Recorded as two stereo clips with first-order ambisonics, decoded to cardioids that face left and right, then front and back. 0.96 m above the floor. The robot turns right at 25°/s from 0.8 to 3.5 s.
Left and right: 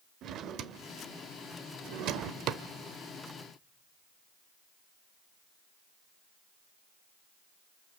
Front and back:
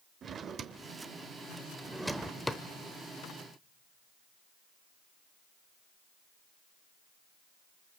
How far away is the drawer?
About 0.8 m.